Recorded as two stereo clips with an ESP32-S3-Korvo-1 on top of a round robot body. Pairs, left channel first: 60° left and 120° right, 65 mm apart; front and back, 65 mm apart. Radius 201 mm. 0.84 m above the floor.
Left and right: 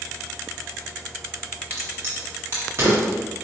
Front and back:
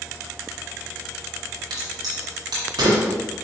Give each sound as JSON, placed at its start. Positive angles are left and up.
{"t": 1.7, "sound": "a crack", "azimuth_deg": -175, "distance_m": 0.6}